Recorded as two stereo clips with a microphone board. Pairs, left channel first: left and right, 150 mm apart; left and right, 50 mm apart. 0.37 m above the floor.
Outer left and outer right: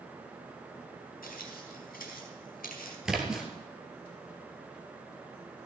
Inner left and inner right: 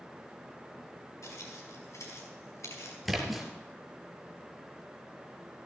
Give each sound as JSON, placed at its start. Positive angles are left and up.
{"t": 1.2, "sound": "footsteps", "side_deg": 80, "distance_m": 5.5}
{"t": 3.0, "sound": "a splash", "side_deg": -5, "distance_m": 1.9}